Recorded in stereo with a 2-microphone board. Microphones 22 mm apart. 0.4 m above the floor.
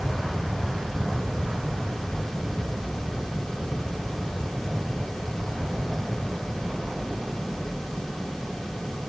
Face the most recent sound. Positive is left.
No sound to turn to.